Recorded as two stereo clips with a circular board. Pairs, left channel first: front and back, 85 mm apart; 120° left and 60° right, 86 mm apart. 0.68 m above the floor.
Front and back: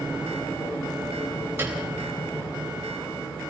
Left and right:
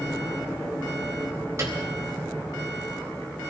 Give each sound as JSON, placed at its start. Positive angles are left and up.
{"t": 1.6, "sound": "a piano", "azimuth_deg": -115, "distance_m": 4.0}